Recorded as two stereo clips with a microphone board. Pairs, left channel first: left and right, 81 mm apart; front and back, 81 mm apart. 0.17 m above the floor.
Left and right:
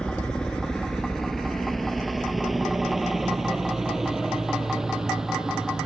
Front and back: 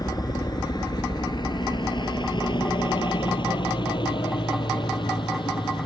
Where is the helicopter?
15° left; by 5.9 s 10° right.